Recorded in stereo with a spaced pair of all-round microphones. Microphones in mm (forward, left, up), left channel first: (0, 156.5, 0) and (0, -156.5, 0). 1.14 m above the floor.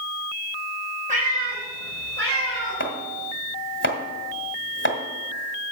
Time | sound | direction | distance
1.1 | a cat meowing | 25° right (ahead or behind) | 4 m
2.8 | chopping | 35° left (ahead or behind) | 1.6 m